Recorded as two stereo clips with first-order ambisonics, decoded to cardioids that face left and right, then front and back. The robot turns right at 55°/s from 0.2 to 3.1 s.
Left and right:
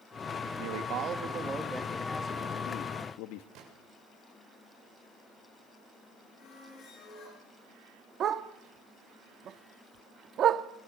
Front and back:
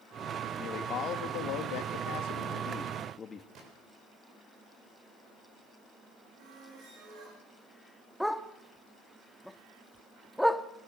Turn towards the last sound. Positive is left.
turn(degrees=-90)